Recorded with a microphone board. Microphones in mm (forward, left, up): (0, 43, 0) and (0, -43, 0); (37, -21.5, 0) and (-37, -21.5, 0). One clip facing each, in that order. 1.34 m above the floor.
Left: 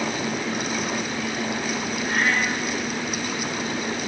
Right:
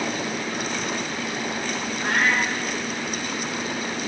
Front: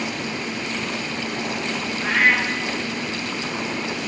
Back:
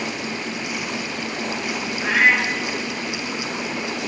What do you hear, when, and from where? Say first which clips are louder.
2.0 s a cat meowing: right 2 dB, back 1 dB; 80° right, 6.5 m